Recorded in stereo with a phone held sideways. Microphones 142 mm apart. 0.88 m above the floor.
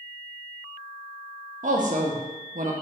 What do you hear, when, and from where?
1.6 s a woman speaking: 65° right (ahead or behind), 0.8 m